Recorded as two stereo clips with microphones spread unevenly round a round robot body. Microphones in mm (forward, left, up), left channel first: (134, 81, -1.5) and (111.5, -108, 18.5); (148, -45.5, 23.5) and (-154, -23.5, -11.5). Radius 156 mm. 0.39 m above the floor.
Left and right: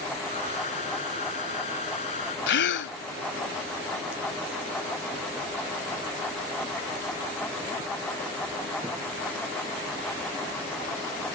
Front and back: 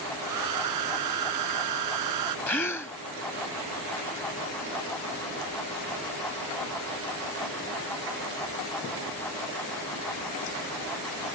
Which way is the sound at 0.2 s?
150° left.